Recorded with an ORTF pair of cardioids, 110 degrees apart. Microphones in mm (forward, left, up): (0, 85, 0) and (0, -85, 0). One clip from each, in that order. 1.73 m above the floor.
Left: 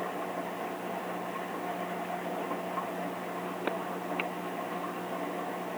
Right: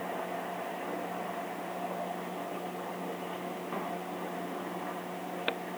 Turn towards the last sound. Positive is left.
No sound to turn to.